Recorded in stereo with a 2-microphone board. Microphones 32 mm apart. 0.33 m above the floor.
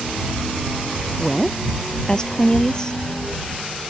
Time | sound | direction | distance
1.2 | a woman speaking | 20° left (ahead or behind) | ?